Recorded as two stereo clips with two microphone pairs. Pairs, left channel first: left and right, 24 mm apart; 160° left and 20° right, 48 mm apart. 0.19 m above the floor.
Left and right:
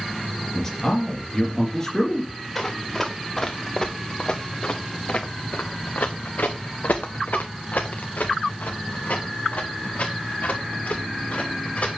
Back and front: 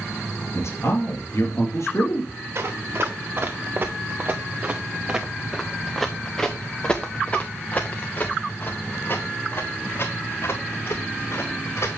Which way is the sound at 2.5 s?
10° left.